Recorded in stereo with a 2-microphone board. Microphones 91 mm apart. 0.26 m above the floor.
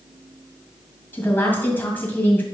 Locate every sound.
1.1 s a woman speaking: 20° left (ahead or behind), 2.0 m